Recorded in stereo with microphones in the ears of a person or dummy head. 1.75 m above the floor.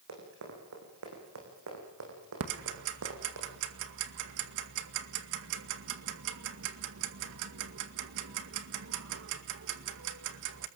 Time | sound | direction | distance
0.1 | running footsteps | 75° right (ahead or behind) | 9.5 m
2.4 | ticking | 70° right (ahead or behind) | 2 m